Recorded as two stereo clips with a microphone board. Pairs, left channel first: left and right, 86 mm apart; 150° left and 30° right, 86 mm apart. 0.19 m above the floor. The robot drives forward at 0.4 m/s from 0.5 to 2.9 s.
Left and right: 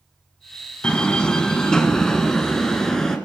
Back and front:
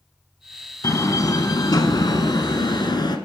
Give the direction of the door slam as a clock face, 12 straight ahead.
7 o'clock.